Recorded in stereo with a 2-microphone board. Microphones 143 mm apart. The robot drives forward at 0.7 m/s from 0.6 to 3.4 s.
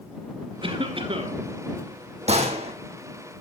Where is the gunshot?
50° right (ahead or behind), 2 m; by 2.7 s 45° right (ahead or behind), 2.5 m.